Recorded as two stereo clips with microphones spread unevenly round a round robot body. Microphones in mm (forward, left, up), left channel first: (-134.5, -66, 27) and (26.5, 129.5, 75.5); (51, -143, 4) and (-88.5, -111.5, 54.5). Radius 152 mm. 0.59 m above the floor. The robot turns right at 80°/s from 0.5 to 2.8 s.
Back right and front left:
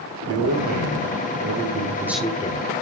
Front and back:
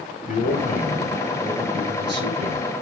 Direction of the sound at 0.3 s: 10° left.